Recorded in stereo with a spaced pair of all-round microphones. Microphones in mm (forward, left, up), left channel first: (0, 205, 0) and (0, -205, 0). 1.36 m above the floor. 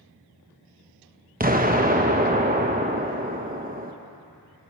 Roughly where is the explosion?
Right.